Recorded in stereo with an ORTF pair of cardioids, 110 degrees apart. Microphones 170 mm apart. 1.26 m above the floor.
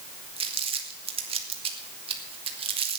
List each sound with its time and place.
0.4 s crumpling: 35° right, 2.5 m